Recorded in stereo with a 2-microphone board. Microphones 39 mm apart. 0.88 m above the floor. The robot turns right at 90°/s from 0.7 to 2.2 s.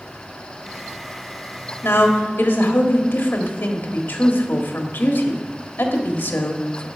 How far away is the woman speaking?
About 1.6 m.